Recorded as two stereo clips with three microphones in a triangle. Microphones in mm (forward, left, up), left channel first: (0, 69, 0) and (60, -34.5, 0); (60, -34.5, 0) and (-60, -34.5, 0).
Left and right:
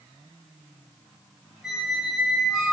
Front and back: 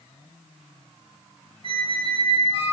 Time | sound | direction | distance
1.6 | a squeak | 150° right | 0.6 m